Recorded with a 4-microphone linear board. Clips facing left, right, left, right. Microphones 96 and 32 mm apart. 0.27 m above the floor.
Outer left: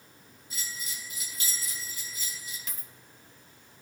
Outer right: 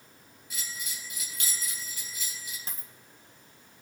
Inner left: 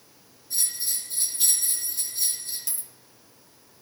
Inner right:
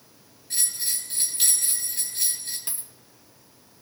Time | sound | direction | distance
0.5 | a bell | 75° right (ahead or behind) | 3 m
2.7 | a dropped coin | 35° right (ahead or behind) | 1.0 m